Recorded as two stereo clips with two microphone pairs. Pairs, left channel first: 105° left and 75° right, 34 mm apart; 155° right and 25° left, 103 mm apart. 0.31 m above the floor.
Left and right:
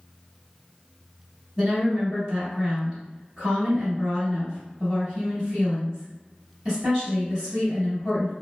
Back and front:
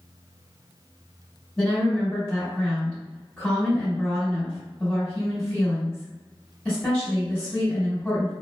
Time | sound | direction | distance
1.6 | a woman speaking | 85° right | 1.5 m